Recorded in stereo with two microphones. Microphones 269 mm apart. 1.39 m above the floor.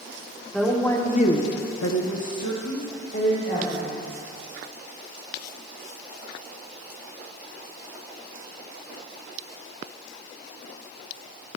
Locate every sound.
0.5 s a woman speaking: centre (ahead or behind), 1.3 m; by 4.1 s 45° left (ahead or behind), 2.5 m